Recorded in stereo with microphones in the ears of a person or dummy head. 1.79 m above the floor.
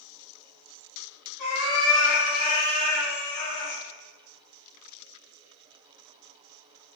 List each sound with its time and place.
1.4 s a cat meowing: 5° left (ahead or behind), 1.2 m; by 3.8 s 30° left (ahead or behind), 1.4 m